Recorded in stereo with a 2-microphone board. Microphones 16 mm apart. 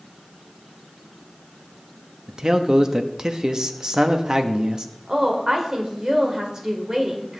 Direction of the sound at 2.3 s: 45° right (ahead or behind).